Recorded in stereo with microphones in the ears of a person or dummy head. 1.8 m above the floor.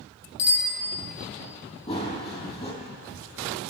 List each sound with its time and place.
0.4 s a bicycle bell: 60° left (ahead or behind), 2.5 m
1.9 s running footsteps: 25° left (ahead or behind), 3 m